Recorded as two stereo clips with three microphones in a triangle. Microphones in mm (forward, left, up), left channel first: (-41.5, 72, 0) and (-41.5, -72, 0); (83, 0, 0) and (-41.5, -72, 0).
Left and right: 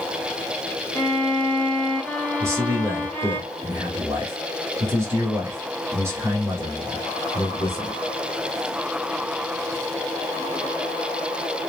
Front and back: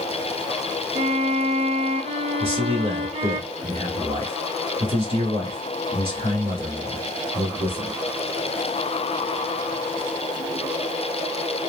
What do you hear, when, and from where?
0.9 s a violin: 170° left, 0.6 m
2.4 s a man speaking: 155° right, 1.5 m